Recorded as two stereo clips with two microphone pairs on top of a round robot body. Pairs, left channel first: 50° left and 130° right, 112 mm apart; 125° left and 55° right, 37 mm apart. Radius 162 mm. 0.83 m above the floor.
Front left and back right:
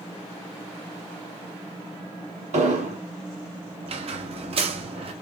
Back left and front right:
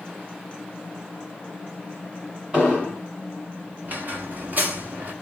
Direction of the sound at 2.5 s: 115° right.